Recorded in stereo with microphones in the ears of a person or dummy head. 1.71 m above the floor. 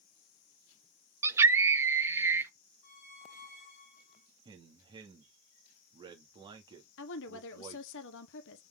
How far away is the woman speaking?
About 1.2 m.